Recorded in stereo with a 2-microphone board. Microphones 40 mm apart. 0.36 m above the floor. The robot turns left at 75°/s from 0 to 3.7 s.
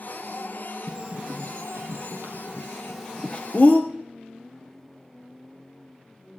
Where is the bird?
20° right (ahead or behind), 2.0 m; by 3.8 s 50° left (ahead or behind), 2.0 m.